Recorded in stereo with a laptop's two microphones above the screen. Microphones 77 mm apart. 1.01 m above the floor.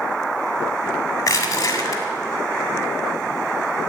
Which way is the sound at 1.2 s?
45° left (ahead or behind).